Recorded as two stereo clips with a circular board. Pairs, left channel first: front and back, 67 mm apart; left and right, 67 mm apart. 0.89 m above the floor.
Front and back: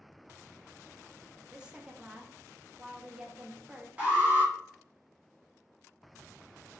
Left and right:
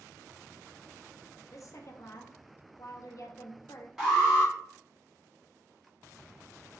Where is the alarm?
170° right, 1.6 m.